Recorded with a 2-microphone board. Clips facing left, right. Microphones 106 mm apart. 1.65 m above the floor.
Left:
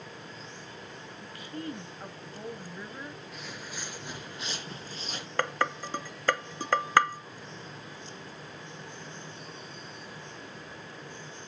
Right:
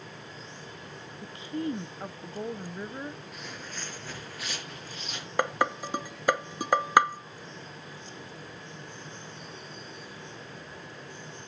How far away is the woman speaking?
About 0.8 m.